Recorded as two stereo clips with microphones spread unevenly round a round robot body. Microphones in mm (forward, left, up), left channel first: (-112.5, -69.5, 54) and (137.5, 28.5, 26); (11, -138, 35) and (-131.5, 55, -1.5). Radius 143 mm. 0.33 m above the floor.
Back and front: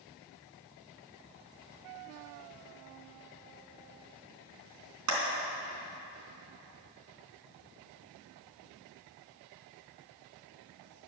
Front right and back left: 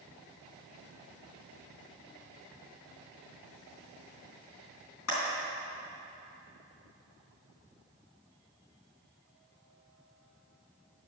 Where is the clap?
15° right, 3.5 m.